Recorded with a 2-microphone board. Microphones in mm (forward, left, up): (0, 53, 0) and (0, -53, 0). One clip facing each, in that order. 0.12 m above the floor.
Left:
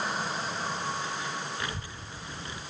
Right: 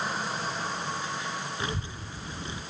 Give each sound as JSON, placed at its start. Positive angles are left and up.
{"t": 1.6, "sound": "a child speaking", "side_deg": -20, "distance_m": 0.9}